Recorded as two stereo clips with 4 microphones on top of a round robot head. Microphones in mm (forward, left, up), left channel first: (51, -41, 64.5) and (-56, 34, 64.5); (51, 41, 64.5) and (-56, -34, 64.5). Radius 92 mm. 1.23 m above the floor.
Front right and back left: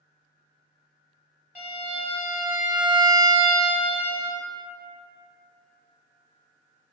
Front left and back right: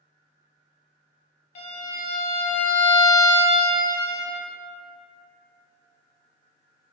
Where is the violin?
65° left, 0.8 m.